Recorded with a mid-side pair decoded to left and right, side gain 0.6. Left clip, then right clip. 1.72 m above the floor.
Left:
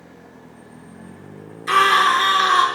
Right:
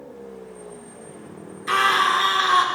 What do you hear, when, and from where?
1.7 s a scream: 15° left, 5 m